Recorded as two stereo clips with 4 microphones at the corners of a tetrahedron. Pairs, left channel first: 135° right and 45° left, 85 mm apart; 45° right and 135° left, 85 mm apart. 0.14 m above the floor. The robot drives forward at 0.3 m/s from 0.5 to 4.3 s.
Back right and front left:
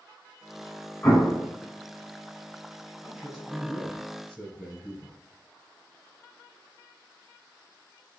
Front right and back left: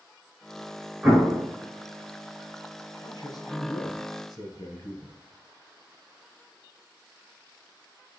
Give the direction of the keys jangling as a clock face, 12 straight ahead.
I don't hear keys jangling.